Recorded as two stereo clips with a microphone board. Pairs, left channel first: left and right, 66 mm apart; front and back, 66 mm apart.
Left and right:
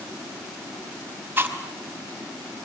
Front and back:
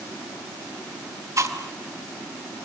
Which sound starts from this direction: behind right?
Chewing, at 1.4 s.